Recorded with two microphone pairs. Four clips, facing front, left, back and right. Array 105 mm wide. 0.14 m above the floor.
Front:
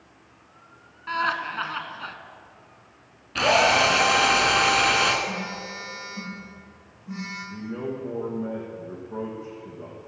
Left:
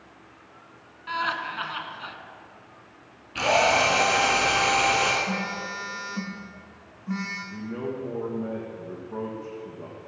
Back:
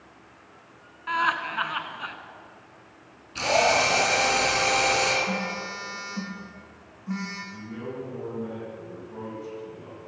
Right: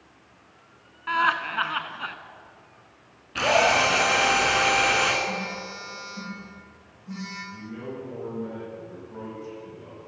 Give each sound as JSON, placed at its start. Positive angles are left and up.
{"t": 1.1, "sound": "laughter", "azimuth_deg": -105, "distance_m": 1.2}
{"t": 3.4, "sound": "a drill", "azimuth_deg": -30, "distance_m": 2.0}
{"t": 5.3, "sound": "a phone buzzing", "azimuth_deg": 125, "distance_m": 5.5}
{"t": 7.5, "sound": "a man speaking", "azimuth_deg": 45, "distance_m": 4.0}